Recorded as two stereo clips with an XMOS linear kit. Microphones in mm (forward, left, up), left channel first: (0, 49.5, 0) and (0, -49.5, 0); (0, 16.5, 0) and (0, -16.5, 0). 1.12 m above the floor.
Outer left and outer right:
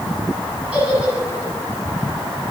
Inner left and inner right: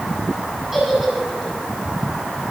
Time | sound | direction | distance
0.7 | a giggle | 15° right (ahead or behind) | 10 m